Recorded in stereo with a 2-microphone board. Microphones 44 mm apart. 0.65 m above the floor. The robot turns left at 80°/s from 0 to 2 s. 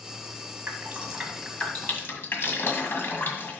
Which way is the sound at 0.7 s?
55° right (ahead or behind).